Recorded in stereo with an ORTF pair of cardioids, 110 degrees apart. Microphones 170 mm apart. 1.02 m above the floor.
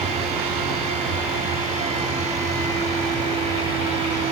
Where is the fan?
35° right, 1.1 m.